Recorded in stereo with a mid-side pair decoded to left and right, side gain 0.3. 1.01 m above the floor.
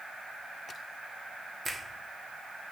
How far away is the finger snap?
About 1.4 m.